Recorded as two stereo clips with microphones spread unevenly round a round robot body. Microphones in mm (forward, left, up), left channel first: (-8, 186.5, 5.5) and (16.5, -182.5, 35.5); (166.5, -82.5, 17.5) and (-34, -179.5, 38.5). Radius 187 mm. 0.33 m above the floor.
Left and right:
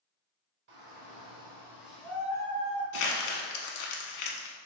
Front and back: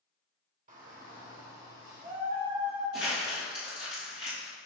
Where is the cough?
No cough in this recording.